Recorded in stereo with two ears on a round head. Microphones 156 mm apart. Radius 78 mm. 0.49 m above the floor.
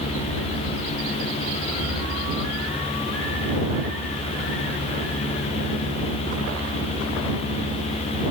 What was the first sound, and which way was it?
Only background noise.